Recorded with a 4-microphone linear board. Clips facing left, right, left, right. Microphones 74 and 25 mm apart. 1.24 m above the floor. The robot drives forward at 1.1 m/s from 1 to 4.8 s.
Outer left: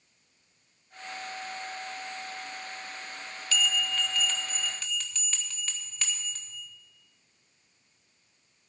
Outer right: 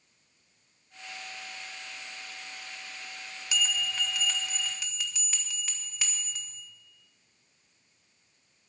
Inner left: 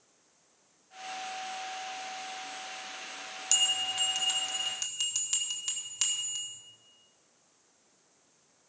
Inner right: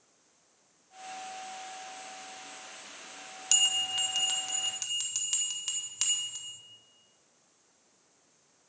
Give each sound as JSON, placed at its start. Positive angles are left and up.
{"t": 3.5, "sound": "a bell", "side_deg": -15, "distance_m": 0.7}